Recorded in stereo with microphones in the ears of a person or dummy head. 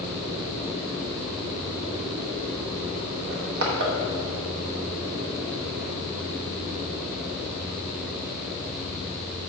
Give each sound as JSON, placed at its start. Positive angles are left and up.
{"t": 3.3, "sound": "crushing", "side_deg": -45, "distance_m": 1.0}